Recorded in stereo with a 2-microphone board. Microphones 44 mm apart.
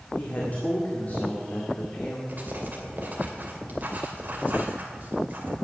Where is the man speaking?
40° left (ahead or behind), 1.7 m.